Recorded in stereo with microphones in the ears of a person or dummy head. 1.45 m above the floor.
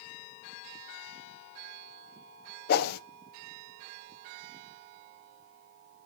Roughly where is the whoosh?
Left.